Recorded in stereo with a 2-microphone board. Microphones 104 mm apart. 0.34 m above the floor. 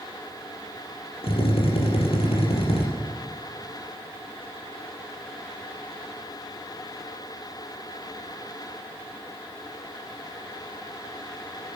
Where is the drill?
70° left (ahead or behind), 4 m.